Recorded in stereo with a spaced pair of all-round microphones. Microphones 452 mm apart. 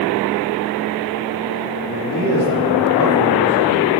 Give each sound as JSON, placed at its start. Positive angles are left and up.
{"t": 1.9, "sound": "a man speaking", "side_deg": 45, "distance_m": 2.5}